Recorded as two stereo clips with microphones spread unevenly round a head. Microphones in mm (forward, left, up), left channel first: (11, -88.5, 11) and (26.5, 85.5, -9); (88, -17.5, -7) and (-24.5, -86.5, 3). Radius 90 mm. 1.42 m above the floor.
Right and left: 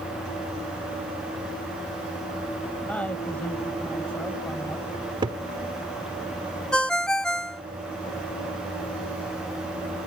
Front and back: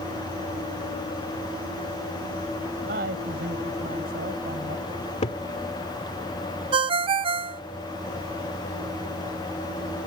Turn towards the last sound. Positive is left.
turn(degrees=-170)